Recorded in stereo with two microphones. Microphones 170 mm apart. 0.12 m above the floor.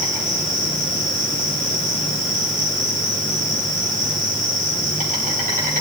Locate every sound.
0.0 s an insect: 45° right (ahead or behind), 9 m